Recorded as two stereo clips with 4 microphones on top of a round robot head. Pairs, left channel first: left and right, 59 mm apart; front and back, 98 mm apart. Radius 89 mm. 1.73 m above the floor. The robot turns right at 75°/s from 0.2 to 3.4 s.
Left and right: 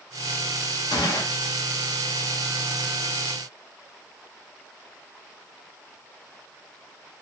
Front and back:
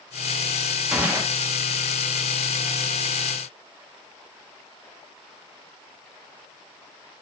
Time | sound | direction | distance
0.9 | a gunshot | 95° left | 1.4 m